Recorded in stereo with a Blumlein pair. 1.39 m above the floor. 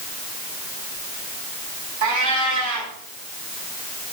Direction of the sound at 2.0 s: 55° right.